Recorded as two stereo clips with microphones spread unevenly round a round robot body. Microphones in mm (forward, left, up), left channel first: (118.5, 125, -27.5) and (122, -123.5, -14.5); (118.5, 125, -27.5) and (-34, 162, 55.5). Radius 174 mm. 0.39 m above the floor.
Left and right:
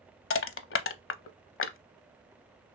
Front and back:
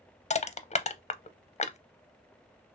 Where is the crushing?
45° left, 0.5 m.